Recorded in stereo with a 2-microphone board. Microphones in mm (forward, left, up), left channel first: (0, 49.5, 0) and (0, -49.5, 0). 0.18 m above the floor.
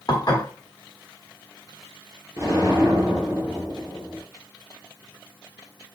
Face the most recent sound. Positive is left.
turn(degrees=-30)  # may be behind; listen again after turning